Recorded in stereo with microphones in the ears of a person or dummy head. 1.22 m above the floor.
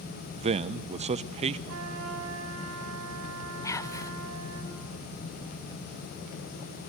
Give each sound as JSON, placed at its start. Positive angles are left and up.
{"t": 0.4, "sound": "a man speaking", "side_deg": -35, "distance_m": 0.6}
{"t": 1.7, "sound": "a trumpet", "side_deg": -85, "distance_m": 6.0}
{"t": 3.6, "sound": "whispering", "side_deg": 20, "distance_m": 0.6}